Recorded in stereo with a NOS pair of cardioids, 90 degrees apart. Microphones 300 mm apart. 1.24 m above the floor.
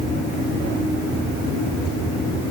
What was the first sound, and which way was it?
Only background noise.